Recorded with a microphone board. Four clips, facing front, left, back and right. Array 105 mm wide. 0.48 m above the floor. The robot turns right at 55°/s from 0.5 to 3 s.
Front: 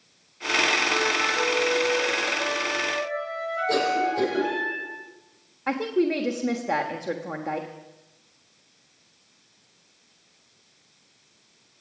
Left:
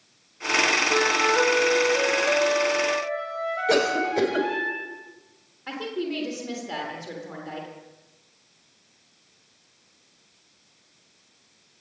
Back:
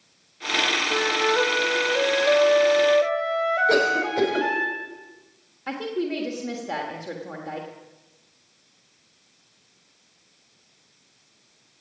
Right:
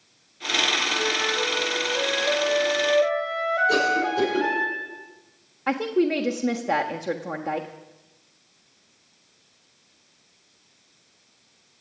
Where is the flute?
100° left, 2.5 m; by 4.7 s 145° right, 2.5 m.